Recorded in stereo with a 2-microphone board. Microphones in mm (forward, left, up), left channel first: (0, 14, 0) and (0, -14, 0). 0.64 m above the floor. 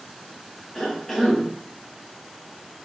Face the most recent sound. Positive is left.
turn(degrees=10)  # may be behind; listen again after turning